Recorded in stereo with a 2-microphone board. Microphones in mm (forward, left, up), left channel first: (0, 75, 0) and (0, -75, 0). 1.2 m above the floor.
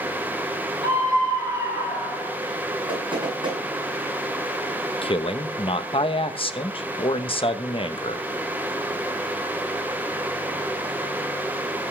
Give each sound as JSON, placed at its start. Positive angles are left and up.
{"t": 0.8, "sound": "a scream", "side_deg": -25, "distance_m": 5.0}
{"t": 2.9, "sound": "knocking", "side_deg": -35, "distance_m": 9.0}
{"t": 5.0, "sound": "a man speaking", "side_deg": 35, "distance_m": 1.1}